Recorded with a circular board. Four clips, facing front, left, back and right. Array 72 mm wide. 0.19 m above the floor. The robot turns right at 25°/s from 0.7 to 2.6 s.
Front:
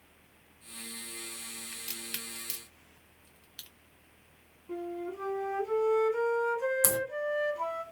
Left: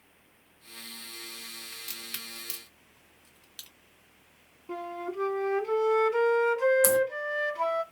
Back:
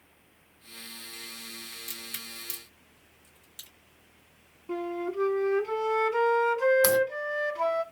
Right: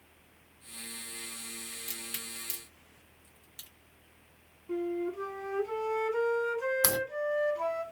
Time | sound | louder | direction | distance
1.7 | a crack | even, even | 20° left | 1.6 m
4.7 | a flute | right 3 dB, back 5 dB | 145° left | 0.5 m
6.8 | a crack | left 7 dB, back 8 dB | 135° right | 0.7 m